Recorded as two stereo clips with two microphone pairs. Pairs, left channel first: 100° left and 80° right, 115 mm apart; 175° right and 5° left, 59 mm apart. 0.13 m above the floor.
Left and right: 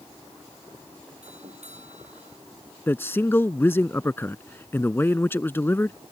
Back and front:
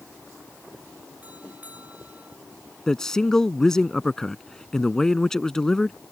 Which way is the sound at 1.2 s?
60° right.